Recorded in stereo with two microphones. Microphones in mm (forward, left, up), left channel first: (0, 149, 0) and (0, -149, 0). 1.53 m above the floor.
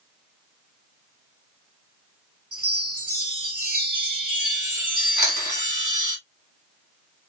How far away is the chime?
About 2 m.